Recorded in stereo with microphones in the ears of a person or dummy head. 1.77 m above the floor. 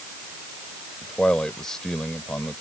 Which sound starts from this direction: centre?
A man speaking, at 1.0 s.